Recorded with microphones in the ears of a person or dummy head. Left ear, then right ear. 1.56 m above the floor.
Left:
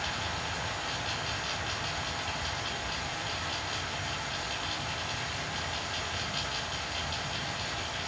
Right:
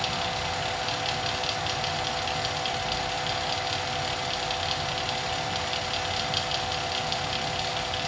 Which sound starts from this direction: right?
A fan, at 0.0 s.